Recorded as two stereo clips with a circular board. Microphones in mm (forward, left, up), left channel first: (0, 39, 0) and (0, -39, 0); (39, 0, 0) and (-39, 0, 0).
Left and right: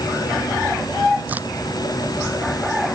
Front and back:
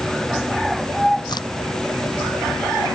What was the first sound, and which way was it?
A crack, 20° right.